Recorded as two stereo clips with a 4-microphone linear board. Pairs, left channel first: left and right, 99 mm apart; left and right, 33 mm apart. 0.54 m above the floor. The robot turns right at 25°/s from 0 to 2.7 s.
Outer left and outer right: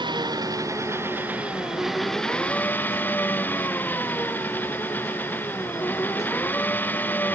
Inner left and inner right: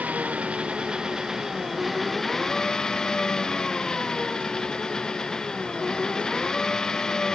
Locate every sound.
0.0 s an engine running: 50° right; by 7.3 s 20° left